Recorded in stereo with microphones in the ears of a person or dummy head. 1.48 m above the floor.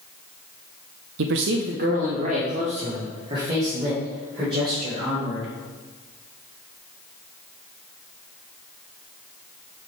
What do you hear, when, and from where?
1.2 s a man speaking: 70° right (ahead or behind), 0.6 m; by 5.5 s 30° right (ahead or behind), 5 m